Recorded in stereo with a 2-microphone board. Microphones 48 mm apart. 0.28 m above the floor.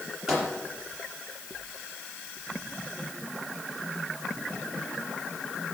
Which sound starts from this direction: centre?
A microwave, at 0.3 s.